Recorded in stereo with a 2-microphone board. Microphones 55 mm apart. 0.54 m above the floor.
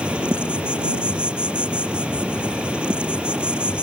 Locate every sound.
0.0 s an insect: 20° right (ahead or behind)